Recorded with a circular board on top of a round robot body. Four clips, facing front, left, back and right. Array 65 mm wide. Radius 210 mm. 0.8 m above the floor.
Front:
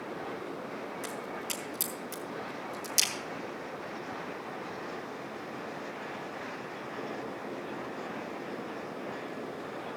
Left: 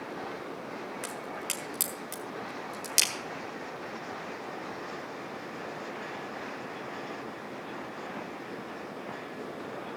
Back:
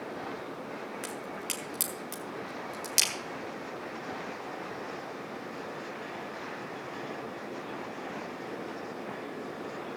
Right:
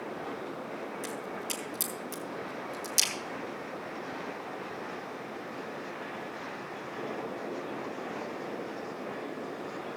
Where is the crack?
135° left, 1.6 m.